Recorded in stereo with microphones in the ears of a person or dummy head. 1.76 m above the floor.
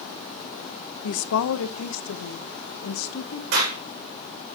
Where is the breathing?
No breathing in this recording.